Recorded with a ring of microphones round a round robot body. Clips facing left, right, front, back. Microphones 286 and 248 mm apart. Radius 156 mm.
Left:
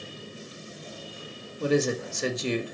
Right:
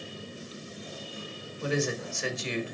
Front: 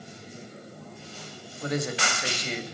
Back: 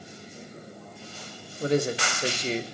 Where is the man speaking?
125° left, 1.7 m.